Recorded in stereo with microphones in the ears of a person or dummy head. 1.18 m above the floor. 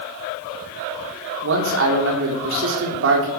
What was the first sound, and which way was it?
A man speaking, 75° right (ahead or behind).